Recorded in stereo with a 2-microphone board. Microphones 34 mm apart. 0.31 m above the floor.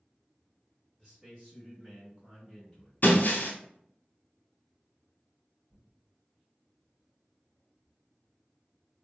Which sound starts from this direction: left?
Breaking glass, at 3.0 s.